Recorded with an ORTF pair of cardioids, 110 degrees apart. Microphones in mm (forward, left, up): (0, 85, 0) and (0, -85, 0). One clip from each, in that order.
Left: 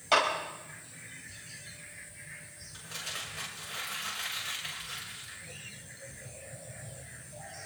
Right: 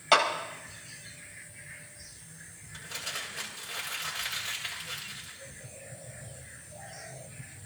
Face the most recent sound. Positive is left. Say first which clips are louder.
# right 2 dB
turn(degrees=-20)